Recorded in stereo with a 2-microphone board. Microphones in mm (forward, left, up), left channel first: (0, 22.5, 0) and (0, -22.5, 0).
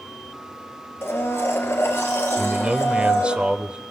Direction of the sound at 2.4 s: 25° right (ahead or behind).